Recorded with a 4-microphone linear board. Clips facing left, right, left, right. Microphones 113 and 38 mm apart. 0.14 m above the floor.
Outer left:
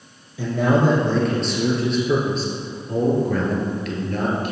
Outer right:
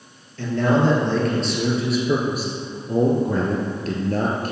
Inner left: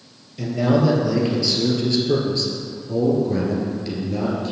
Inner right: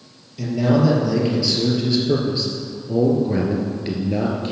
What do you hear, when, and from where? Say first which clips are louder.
0.4 s a man speaking: even, inner right 1 dB; 10° left (ahead or behind), 2.5 m; by 4.5 s 40° right (ahead or behind), 1.9 m